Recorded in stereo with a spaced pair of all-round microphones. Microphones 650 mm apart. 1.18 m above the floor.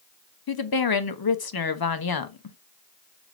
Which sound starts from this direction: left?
A woman speaking, at 0.5 s.